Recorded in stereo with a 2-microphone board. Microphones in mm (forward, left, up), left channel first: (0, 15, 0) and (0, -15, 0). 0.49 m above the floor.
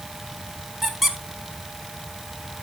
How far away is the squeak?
About 1.1 m.